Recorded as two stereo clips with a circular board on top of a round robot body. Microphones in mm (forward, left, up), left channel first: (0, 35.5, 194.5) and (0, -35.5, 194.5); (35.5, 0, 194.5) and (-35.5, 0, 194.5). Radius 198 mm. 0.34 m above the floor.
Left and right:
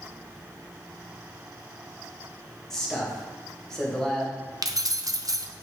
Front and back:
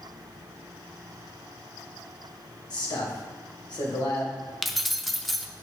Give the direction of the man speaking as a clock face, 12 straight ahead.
12 o'clock.